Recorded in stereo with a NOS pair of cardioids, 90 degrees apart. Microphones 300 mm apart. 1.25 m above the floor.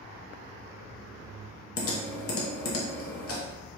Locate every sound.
1.8 s typing on a keyboard: 50° left, 1.0 m